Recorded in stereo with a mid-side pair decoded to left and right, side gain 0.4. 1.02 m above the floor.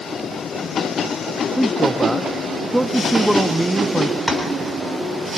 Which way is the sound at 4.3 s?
Straight ahead.